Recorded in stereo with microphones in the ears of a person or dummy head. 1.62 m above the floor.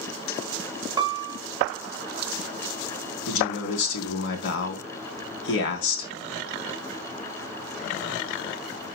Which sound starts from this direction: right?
A piano, at 1.0 s.